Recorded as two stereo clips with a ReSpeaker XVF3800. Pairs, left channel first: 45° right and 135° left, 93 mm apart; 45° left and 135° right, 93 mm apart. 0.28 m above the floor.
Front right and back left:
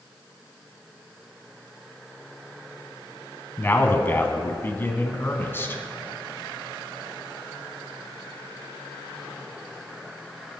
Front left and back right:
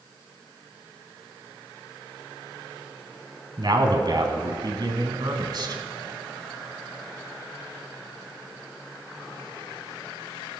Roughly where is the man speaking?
Right.